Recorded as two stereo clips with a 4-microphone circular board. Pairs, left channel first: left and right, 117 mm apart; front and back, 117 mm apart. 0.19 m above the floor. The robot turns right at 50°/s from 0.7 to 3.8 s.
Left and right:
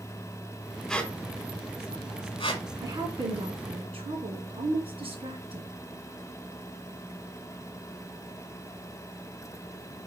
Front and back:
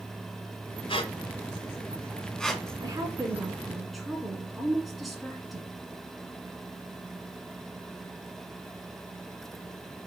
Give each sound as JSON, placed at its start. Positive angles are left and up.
{"t": 0.9, "sound": "a squeak", "azimuth_deg": 10, "distance_m": 1.4}
{"t": 2.8, "sound": "a woman speaking", "azimuth_deg": -140, "distance_m": 2.5}